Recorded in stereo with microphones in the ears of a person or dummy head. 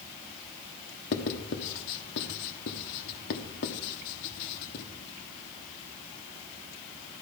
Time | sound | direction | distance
1.1 | writing | 55° left (ahead or behind) | 1.3 m